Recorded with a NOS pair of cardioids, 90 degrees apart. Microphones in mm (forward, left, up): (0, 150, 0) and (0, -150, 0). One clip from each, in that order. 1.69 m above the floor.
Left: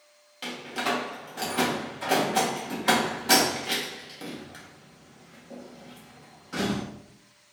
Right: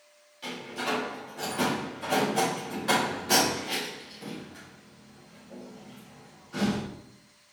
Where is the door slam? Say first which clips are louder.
Left 3 dB; 65° left, 2.5 m.